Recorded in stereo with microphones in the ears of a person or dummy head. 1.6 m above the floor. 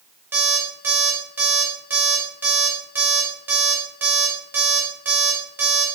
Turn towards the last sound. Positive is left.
turn(degrees=-10)  # may be behind; listen again after turning